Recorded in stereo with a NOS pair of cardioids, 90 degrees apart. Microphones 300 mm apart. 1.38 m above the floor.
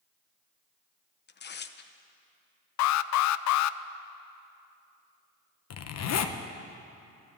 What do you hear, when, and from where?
1.3 s tearing paper: 35° left, 0.9 m
2.8 s an alarm: 70° left, 0.5 m
5.7 s a zipper: 60° left, 1.0 m